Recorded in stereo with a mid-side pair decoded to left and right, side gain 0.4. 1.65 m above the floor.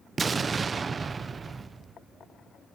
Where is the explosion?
40° right, 0.8 m.